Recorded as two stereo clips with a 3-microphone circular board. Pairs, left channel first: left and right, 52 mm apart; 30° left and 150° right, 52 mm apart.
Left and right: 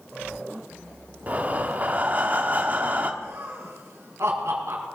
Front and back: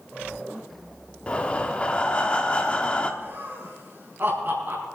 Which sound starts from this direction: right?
Laughter, at 3.2 s.